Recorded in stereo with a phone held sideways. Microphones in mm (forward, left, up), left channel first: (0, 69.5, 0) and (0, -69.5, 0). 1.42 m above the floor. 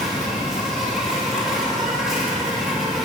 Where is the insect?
Centre (ahead or behind), 3 m.